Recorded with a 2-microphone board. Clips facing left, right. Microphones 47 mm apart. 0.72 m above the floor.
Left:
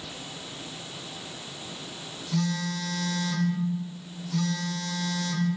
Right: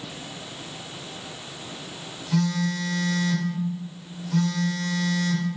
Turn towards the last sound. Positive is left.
turn(degrees=-35)  # may be behind; listen again after turning